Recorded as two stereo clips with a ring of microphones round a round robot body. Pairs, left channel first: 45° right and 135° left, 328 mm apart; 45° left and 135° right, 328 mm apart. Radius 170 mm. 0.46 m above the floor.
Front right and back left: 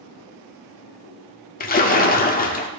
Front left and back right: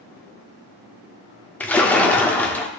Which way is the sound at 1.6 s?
35° right.